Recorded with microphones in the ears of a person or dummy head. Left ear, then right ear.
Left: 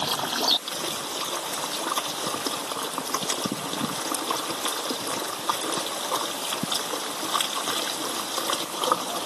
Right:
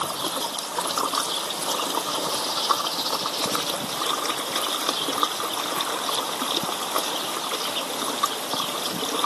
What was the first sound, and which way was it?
Only background noise.